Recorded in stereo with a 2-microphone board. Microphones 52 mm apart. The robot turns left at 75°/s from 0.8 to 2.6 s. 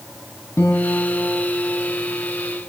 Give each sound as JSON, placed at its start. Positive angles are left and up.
{"t": 0.6, "sound": "a guitar", "azimuth_deg": 65, "distance_m": 3.0}